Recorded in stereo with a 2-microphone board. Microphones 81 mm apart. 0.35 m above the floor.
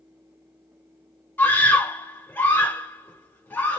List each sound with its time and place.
1.4 s a scream: 25° left (ahead or behind), 1.7 m